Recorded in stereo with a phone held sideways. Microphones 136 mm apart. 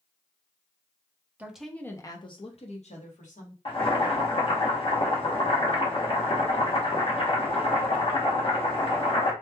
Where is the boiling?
40° left (ahead or behind), 1.1 m.